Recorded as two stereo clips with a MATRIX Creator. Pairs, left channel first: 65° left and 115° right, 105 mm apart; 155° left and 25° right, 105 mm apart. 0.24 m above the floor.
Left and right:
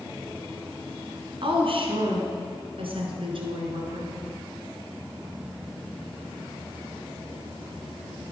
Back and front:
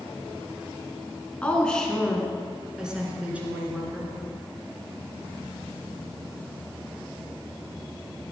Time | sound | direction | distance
1.4 | a woman speaking | 125° right | 2.5 m